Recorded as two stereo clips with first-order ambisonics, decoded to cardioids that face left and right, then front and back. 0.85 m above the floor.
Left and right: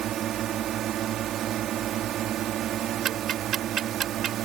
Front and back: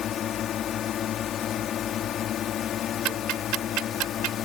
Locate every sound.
0.0 s a drone: 50° right
3.0 s ticking: 150° right